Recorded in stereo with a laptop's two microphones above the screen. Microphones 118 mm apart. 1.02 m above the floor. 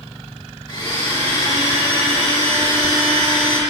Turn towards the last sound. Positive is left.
turn(degrees=40)  # may be behind; listen again after turning